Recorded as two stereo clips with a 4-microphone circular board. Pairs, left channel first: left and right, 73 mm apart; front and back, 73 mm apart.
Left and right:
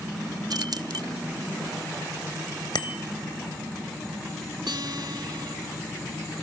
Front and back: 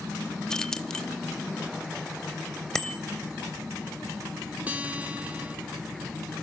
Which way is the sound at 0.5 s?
80° right.